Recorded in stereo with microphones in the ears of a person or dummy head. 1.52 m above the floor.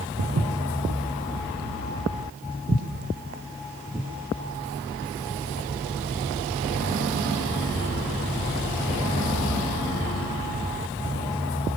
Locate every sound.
0.2 s footsteps: 60° right (ahead or behind), 3 m; by 4.1 s 20° right (ahead or behind), 6.5 m